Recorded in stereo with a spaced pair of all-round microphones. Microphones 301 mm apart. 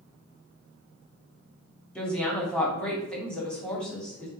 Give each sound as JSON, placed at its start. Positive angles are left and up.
{"t": 1.9, "sound": "a woman speaking", "side_deg": 5, "distance_m": 3.0}